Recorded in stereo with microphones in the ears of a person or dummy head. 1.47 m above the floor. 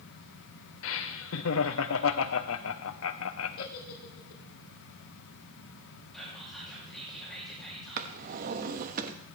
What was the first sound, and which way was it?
Laughter, 65° left (ahead or behind).